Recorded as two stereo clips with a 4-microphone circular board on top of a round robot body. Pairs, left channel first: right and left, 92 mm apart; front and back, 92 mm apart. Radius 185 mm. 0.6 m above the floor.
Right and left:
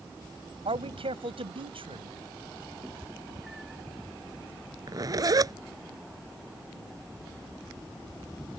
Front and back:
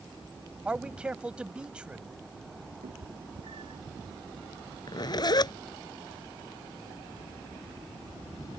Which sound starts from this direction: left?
A man speaking, at 0.7 s.